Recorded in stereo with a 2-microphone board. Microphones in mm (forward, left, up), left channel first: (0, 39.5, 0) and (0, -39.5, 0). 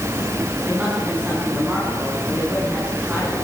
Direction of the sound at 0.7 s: 20° right (ahead or behind).